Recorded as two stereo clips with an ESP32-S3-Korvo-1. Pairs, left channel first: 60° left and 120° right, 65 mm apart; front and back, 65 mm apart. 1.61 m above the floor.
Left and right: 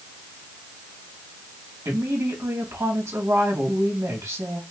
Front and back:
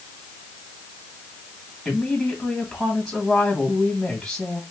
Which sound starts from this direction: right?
A woman speaking, at 1.9 s.